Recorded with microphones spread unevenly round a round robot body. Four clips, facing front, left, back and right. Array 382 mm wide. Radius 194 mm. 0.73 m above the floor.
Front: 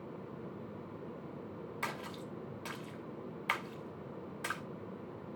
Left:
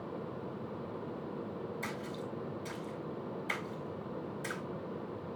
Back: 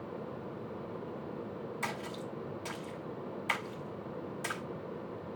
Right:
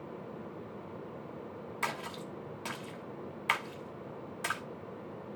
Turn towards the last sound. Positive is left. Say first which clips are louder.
# right 2 dB, back 1 dB
turn(degrees=-60)